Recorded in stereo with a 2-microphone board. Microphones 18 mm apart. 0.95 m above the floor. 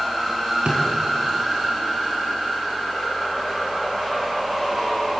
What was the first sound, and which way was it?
A drawer, 60° right (ahead or behind).